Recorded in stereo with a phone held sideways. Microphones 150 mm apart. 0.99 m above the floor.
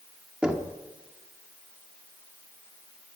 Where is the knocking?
5° right (ahead or behind), 1.2 m.